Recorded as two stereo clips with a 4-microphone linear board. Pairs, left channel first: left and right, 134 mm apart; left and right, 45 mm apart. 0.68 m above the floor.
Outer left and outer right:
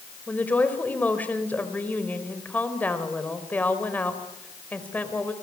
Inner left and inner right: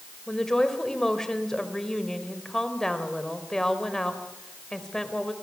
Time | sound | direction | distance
0.3 | a woman speaking | 10° left (ahead or behind) | 3.5 m